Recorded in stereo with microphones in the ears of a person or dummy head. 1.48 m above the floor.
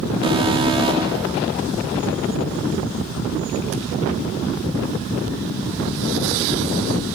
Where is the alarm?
30° right (ahead or behind), 5.5 m.